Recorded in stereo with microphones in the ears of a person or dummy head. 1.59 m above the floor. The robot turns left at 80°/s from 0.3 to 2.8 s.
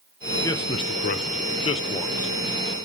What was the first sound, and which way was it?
A man speaking, 160° left.